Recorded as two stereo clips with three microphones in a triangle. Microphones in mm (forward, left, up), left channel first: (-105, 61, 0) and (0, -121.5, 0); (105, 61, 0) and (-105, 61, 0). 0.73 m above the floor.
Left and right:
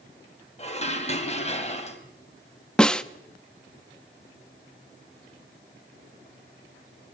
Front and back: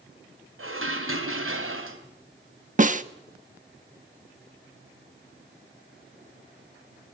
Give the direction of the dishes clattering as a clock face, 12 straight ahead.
6 o'clock.